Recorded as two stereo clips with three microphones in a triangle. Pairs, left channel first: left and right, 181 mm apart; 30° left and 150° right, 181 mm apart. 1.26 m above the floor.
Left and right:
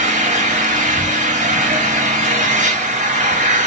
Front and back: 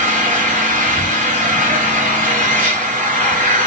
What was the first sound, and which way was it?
An engine running, 120° right.